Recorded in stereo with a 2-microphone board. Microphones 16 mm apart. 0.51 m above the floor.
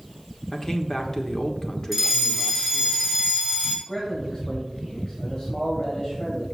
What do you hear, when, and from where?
0.5 s a man speaking: 40° left (ahead or behind), 1.2 m
1.9 s a fire alarm: 15° left (ahead or behind), 3 m
3.9 s a man speaking: 55° left (ahead or behind), 2 m